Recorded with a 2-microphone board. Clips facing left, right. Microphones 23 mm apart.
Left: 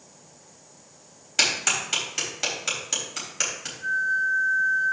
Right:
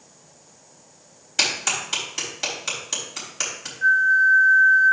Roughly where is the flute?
Right.